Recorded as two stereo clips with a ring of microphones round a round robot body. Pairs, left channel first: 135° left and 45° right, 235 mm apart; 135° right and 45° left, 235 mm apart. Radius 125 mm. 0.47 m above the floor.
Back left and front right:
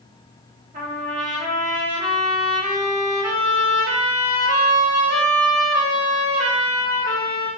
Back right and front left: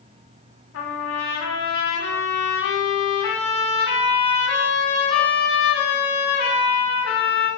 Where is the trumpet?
100° right, 2 m.